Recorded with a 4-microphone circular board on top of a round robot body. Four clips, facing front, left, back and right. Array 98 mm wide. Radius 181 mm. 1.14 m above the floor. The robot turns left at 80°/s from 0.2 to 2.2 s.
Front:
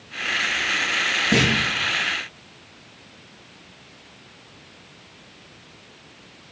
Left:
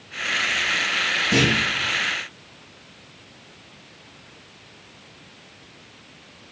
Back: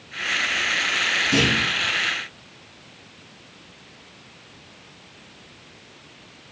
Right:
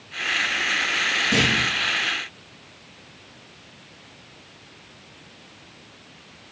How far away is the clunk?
About 4.5 m.